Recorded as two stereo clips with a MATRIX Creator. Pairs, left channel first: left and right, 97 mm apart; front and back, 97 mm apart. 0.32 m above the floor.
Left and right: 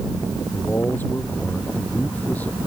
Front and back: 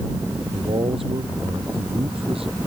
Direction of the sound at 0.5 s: 160° left.